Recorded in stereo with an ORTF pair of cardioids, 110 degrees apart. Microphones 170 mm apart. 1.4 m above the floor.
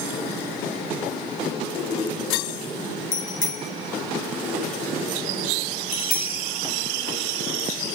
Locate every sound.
3.1 s a bicycle bell: 50° left, 7.5 m; by 6.5 s 30° left, 4 m